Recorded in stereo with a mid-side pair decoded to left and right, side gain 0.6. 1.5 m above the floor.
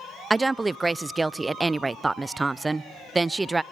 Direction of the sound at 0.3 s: 15° right.